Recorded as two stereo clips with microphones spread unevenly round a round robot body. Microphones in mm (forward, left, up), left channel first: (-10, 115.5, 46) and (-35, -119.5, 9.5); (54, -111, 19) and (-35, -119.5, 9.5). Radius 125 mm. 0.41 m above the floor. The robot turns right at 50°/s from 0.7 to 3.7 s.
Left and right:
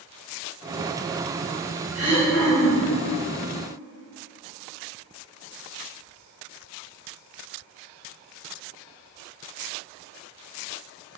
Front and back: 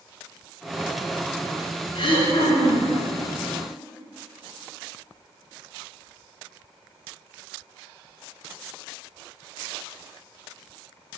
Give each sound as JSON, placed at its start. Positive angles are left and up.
{"t": 1.9, "sound": "throat clearing", "azimuth_deg": -20, "distance_m": 2.5}